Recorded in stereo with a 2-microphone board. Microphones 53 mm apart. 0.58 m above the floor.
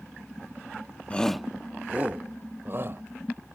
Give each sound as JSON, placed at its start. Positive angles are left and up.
{"t": 1.1, "sound": "a shout", "side_deg": 25}